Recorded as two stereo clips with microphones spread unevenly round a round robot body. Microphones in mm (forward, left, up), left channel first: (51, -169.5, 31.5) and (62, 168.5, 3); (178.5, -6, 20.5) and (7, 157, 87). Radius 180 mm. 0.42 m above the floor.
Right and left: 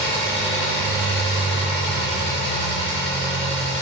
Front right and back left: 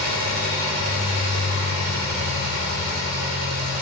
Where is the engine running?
165° right, 5 m.